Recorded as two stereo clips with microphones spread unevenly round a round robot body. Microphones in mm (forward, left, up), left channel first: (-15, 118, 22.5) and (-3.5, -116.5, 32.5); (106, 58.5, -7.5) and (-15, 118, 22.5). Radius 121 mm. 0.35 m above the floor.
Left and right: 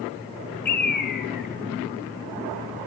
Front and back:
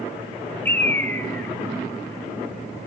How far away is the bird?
About 1.0 m.